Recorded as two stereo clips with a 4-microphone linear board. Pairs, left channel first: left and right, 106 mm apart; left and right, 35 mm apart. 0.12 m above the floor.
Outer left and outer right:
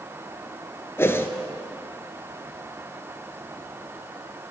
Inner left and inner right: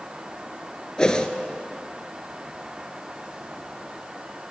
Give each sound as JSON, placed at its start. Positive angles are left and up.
{"t": 1.0, "sound": "a whoosh", "side_deg": 20, "distance_m": 0.6}